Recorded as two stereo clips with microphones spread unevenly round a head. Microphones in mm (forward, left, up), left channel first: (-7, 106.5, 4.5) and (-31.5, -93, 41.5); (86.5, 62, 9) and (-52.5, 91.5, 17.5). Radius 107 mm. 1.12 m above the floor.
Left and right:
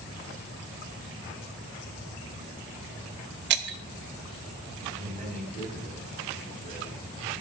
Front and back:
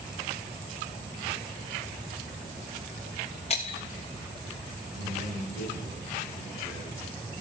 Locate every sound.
3.5 s breaking glass: 70° right, 0.8 m
5.0 s a man speaking: 155° right, 7 m